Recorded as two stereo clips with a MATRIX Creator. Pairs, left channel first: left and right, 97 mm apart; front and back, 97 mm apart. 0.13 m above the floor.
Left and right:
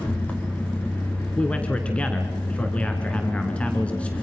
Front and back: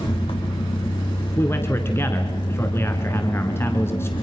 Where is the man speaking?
30° left, 1.3 m.